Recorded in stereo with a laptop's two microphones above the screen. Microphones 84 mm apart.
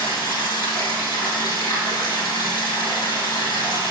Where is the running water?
65° left (ahead or behind), 3 m.